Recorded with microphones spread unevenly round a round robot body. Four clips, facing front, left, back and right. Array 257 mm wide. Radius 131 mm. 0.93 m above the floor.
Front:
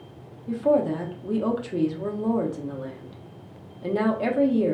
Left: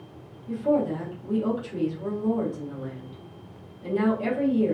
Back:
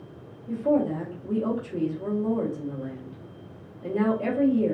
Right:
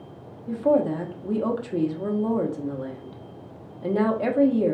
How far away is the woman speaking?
About 1.0 m.